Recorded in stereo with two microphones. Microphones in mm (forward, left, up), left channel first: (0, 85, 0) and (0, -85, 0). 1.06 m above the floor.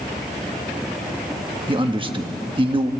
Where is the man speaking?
30° right (ahead or behind), 1.3 m.